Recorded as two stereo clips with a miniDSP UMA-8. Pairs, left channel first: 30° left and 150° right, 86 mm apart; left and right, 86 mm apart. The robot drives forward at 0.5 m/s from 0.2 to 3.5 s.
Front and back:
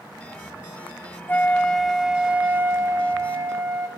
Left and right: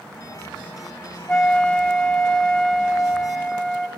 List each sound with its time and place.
1.3 s a flute: 25° left, 0.7 m; by 3.9 s 175° left, 1.1 m